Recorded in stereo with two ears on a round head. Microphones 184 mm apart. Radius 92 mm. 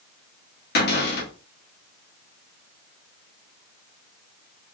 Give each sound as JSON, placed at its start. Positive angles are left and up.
{"t": 0.8, "sound": "a cupboard door", "side_deg": 50, "distance_m": 1.5}